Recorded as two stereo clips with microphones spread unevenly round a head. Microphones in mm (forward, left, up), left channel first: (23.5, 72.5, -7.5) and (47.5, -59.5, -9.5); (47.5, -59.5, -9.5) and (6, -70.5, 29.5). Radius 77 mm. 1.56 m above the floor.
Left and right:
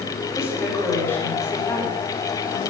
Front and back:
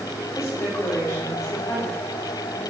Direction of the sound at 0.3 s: 25° left.